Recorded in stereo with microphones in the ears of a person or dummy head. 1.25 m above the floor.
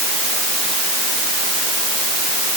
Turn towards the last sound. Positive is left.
No sound to turn to.